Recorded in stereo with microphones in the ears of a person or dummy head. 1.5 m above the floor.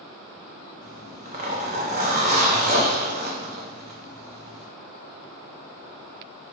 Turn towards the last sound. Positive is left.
turn(degrees=-35)  # may be behind; listen again after turning